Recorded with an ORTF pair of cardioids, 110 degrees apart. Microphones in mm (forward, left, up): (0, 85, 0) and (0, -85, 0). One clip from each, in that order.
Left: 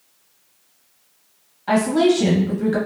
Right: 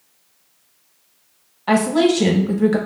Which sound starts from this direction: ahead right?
A woman speaking, at 1.7 s.